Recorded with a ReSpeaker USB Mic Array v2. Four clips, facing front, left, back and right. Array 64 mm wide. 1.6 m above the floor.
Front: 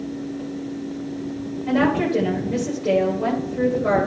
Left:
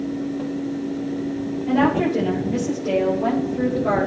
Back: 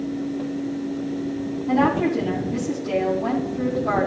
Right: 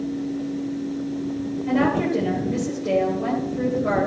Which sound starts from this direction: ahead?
A woman speaking, at 1.6 s.